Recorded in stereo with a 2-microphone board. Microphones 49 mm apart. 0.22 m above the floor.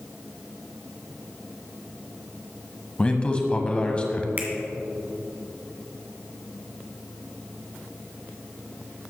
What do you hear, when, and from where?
3.0 s a man speaking: 25° left (ahead or behind), 1.1 m
4.4 s a finger snap: 35° right (ahead or behind), 1.8 m